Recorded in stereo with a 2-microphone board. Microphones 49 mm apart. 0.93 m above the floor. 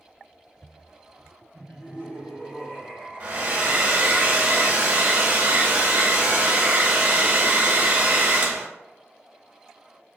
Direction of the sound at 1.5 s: 60° left (ahead or behind).